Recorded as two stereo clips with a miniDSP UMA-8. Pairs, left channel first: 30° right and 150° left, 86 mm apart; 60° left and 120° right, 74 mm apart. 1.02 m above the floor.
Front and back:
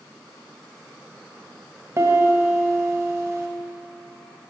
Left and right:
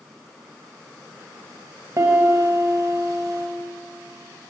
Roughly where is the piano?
Behind right.